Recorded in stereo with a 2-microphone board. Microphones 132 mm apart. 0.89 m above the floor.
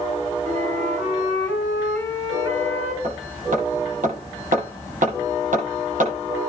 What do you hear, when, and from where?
0.5 s a flute: 80° right, 8.5 m
3.0 s hammering: 85° right, 9.5 m